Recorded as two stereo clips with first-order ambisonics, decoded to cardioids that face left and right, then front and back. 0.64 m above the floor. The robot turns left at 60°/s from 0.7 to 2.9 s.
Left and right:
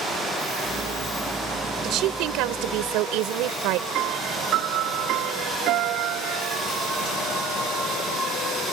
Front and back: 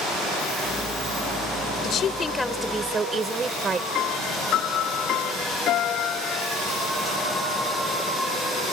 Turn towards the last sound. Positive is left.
turn(degrees=-50)